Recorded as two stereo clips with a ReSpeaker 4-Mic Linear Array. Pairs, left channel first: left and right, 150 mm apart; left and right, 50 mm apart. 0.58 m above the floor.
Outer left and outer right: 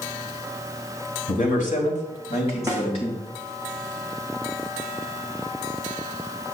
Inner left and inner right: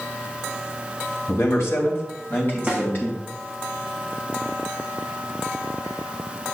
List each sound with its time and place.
1.3 s a man speaking: 65° left (ahead or behind), 2.5 m; by 3.2 s 40° left (ahead or behind), 3.5 m
2.7 s a snare drum: 20° right (ahead or behind), 2 m